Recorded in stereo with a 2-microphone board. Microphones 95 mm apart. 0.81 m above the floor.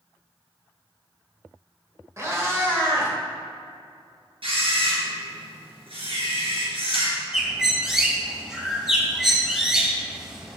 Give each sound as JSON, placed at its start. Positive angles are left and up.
{"t": 2.2, "sound": "a cat meowing", "side_deg": -30, "distance_m": 1.4}
{"t": 4.4, "sound": "a camera shutter", "side_deg": -70, "distance_m": 2.5}
{"t": 7.3, "sound": "a bird", "side_deg": -10, "distance_m": 1.6}